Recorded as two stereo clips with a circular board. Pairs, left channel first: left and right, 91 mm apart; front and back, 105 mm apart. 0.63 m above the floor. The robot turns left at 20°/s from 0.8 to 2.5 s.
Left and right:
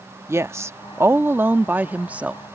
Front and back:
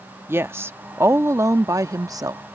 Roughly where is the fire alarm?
No fire alarm in this recording.